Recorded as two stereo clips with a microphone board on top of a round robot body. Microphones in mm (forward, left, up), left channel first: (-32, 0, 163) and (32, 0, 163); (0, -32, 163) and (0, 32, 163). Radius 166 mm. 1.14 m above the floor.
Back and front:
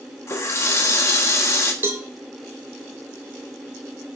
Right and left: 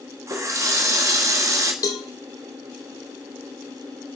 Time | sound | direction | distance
0.3 | a running tap | 135° left | 1.4 m
1.8 | a cowbell | 60° right | 0.8 m